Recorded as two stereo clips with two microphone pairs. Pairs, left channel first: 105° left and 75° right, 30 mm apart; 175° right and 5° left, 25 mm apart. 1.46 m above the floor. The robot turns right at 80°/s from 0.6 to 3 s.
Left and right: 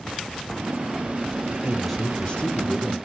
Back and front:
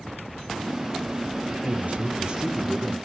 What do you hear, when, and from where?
1.6 s a man speaking: 5° left, 1.4 m; by 3.0 s 110° left, 1.4 m